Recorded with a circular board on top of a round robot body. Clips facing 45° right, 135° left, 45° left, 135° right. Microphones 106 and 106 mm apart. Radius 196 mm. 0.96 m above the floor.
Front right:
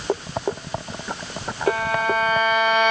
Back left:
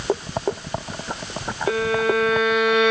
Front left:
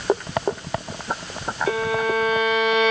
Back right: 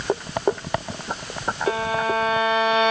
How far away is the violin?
About 4.5 m.